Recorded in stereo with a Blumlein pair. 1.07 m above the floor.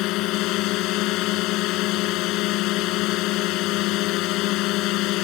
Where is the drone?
40° left.